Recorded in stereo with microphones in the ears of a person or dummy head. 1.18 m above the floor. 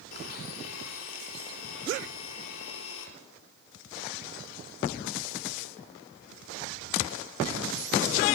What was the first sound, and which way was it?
A blender, 85° left.